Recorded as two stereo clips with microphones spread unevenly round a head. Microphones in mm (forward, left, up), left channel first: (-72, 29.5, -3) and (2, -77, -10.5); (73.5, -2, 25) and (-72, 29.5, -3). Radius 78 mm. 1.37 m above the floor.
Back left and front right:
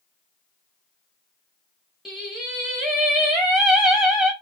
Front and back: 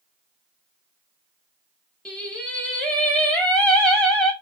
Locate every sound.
2.0 s singing: 35° left, 1.2 m